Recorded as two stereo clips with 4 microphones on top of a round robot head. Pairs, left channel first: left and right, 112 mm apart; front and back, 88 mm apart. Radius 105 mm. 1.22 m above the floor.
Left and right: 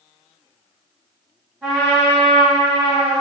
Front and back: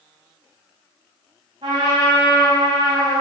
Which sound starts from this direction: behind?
A trumpet, at 1.6 s.